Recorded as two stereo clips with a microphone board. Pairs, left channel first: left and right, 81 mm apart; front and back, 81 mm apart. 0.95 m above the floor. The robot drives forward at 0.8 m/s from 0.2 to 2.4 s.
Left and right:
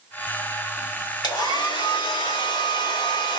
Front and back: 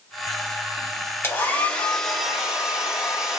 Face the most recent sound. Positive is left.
turn(degrees=100)